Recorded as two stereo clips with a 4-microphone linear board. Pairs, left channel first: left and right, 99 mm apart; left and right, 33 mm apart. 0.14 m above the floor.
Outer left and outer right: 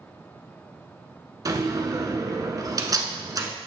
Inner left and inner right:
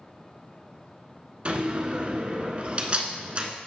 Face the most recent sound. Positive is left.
turn(degrees=-40)  # may be behind; listen again after turning